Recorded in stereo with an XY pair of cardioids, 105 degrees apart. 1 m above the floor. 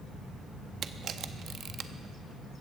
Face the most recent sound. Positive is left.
turn(degrees=-60)